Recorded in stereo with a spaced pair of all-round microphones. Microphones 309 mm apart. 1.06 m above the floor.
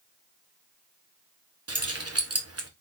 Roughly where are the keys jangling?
Right.